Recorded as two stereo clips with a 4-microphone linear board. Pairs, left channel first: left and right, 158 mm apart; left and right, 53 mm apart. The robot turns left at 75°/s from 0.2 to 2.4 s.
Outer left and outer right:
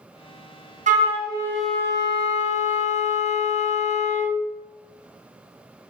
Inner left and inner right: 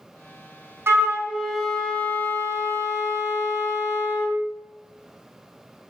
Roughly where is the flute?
Behind right.